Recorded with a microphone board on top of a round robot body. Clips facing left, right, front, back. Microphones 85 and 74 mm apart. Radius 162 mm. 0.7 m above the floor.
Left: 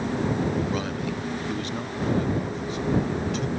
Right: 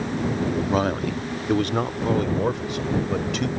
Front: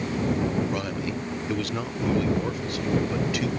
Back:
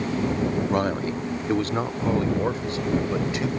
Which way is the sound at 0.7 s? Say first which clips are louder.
Right 6 dB, back 5 dB; 135° right.